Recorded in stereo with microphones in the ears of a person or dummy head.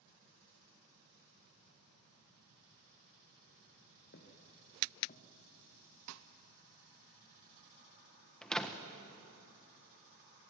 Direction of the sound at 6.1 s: 80° right.